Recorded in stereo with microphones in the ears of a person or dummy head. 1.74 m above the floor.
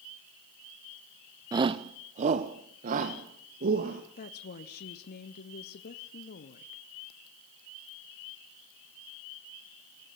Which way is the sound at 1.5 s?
20° right (ahead or behind).